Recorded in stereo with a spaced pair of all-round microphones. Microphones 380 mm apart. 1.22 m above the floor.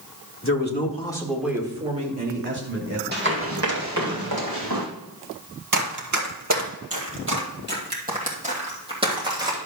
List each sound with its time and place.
0.4 s a man speaking: 35° left (ahead or behind), 1.7 m; by 3.0 s 35° right (ahead or behind), 3 m
3.1 s running footsteps: 25° right (ahead or behind), 2 m; by 4.8 s 60° right (ahead or behind), 3 m
5.7 s running footsteps: 50° right (ahead or behind), 2.0 m; by 9.6 s 10° right (ahead or behind), 3 m